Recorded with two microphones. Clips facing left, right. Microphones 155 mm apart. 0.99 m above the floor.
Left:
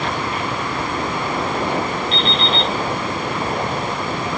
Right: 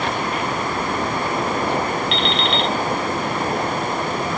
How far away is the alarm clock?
About 3 m.